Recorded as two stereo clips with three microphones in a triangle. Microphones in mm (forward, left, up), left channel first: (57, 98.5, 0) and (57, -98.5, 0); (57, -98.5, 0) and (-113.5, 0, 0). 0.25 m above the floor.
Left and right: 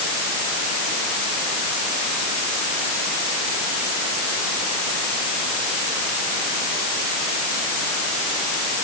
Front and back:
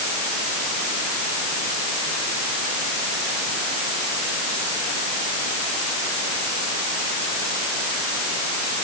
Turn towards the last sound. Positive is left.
No sound to turn to.